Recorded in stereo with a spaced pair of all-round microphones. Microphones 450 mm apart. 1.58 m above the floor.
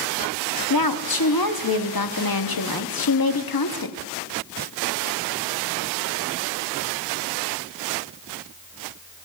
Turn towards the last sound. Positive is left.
turn(degrees=50)  # may be behind; listen again after turning